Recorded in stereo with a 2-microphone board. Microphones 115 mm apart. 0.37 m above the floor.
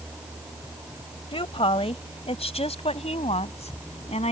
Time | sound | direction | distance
1.3 | a woman speaking | 55° left (ahead or behind) | ?